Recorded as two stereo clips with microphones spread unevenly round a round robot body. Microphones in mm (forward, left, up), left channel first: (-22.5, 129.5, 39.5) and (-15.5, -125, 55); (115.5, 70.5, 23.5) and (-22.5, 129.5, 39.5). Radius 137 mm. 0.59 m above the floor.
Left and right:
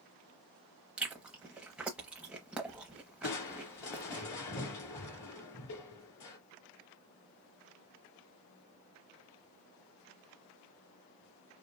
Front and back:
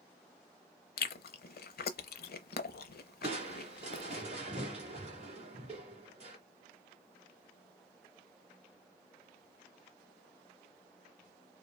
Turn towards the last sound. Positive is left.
turn(degrees=110)